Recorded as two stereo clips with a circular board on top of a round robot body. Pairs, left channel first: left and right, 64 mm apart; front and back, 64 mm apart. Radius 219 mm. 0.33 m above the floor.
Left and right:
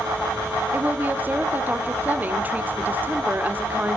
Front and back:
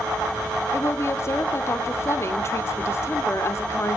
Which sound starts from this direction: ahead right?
A woman speaking, at 0.7 s.